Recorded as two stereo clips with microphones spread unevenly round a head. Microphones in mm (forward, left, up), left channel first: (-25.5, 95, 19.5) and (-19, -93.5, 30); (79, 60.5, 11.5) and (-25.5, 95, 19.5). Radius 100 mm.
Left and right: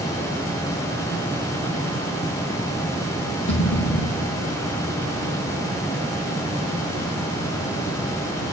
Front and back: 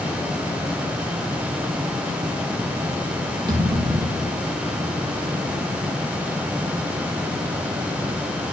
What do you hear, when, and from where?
3.5 s a thud: 115° left, 5.5 m